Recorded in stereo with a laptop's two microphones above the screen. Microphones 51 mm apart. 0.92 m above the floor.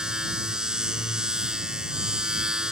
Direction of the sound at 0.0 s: 15° right (ahead or behind).